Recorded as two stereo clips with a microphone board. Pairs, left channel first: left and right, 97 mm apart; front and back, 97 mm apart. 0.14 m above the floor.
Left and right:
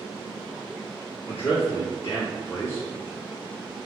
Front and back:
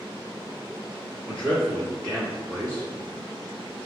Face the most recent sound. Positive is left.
turn(degrees=100)